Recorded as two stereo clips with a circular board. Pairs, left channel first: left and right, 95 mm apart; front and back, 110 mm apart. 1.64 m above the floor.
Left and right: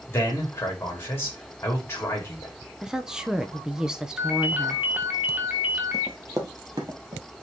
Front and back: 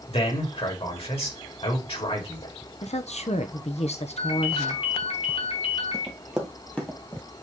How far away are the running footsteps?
About 2 m.